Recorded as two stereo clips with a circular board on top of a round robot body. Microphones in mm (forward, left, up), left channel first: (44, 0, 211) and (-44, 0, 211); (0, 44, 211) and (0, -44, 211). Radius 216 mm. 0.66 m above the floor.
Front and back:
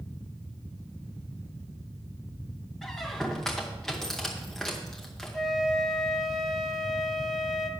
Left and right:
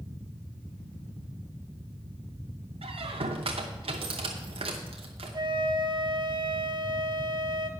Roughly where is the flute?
Right.